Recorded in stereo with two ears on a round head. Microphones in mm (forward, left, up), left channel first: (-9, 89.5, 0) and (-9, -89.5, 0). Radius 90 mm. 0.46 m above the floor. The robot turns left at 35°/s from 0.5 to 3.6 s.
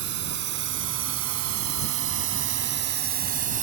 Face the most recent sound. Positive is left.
turn(degrees=-40)  # may be behind; listen again after turning